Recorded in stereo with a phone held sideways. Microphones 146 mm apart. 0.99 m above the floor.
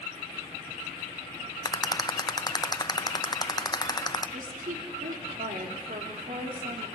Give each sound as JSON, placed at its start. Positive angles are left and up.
{"t": 1.6, "sound": "a rattle", "side_deg": 25, "distance_m": 0.9}
{"t": 4.3, "sound": "a woman speaking", "side_deg": -70, "distance_m": 3.0}